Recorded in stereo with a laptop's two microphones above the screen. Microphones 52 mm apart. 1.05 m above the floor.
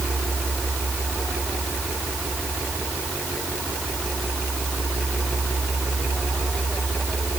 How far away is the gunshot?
No gunshot in this recording.